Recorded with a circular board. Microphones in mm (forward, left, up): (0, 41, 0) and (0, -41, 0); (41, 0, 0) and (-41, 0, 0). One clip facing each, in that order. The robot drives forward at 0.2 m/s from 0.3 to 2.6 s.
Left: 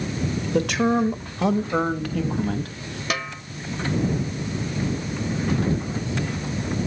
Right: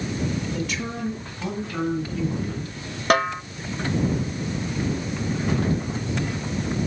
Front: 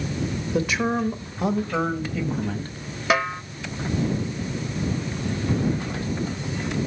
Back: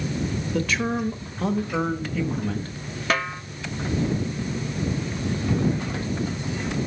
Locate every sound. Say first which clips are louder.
0.5 s a man speaking: left 9 dB, front 2 dB; 70° left, 1.5 m; by 2.8 s 90° left, 1.4 m
3.1 s a snare drum: right 10 dB, front 3 dB; 80° right, 0.5 m